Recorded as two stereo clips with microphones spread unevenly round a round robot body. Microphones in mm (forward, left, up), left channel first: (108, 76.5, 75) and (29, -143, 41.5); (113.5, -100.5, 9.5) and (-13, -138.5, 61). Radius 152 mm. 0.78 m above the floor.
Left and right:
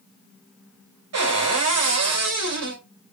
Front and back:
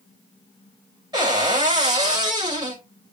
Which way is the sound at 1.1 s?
100° right.